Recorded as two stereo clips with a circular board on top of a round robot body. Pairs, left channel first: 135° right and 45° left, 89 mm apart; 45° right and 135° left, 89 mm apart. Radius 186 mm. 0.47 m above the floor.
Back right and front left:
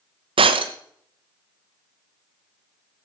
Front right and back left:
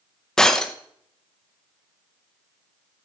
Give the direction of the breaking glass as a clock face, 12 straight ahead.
11 o'clock.